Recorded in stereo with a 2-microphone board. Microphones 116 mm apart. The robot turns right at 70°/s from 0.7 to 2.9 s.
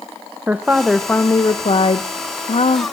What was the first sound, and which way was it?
A woman speaking, 15° right.